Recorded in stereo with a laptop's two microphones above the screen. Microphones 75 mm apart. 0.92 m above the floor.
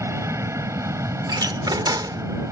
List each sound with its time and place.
0.0 s an aircraft: 40° right (ahead or behind)
1.3 s a door slam: 65° right (ahead or behind)